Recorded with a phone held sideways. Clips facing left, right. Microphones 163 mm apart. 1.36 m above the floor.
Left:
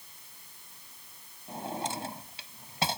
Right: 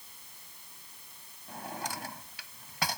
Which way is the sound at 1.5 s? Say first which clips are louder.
Left 4 dB; 25° left (ahead or behind).